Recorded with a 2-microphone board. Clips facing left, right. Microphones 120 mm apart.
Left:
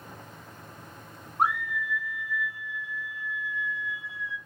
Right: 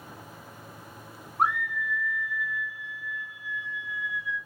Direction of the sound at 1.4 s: Centre (ahead or behind).